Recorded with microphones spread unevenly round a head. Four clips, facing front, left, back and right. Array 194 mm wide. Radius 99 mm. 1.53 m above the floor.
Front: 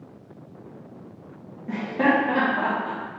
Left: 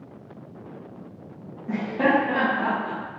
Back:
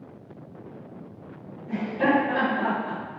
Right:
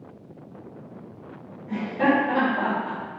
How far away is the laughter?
About 1.0 m.